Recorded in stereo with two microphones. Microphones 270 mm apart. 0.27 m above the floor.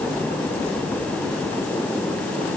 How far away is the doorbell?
I don't hear a doorbell.